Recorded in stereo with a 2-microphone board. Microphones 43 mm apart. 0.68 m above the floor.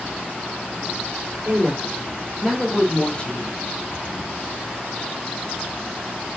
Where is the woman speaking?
40° right (ahead or behind), 1.5 m; by 3.6 s 45° left (ahead or behind), 1.2 m.